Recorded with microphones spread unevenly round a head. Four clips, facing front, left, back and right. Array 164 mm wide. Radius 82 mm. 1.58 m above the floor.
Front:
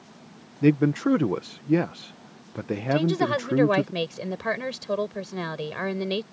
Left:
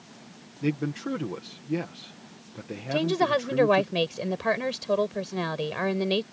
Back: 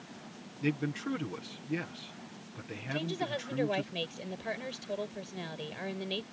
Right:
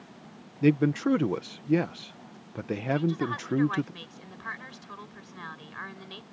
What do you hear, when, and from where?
0.6 s a man speaking: 20° right
2.9 s a woman speaking: 60° left